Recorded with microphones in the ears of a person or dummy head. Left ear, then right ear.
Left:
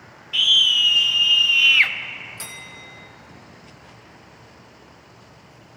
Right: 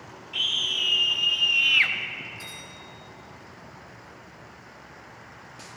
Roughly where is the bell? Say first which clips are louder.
Left 3 dB; left.